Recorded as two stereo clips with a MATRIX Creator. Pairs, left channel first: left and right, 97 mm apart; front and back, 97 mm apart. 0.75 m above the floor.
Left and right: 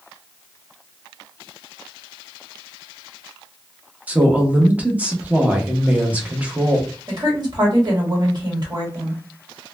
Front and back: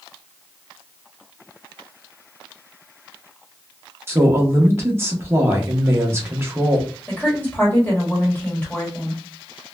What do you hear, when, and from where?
4.1 s a woman speaking: 150° right, 0.7 m
7.1 s a woman speaking: 70° right, 1.4 m